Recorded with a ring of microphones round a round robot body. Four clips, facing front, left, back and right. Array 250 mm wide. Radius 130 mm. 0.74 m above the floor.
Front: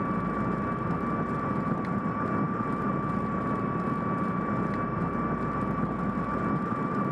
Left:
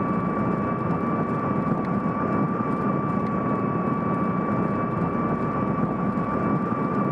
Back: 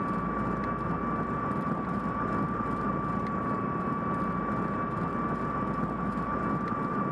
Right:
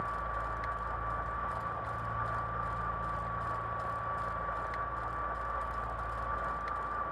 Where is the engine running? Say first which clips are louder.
Left 12 dB, front 1 dB; 85° left.